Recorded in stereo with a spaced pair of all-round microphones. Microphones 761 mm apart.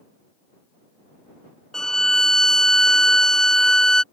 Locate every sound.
1.7 s a violin: centre (ahead or behind)